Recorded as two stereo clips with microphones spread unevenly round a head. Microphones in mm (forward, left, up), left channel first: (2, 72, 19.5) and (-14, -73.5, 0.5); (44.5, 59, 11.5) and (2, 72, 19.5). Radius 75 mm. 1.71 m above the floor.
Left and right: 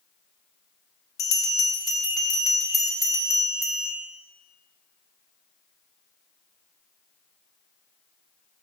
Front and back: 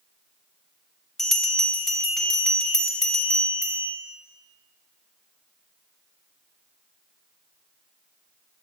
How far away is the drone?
I don't hear a drone.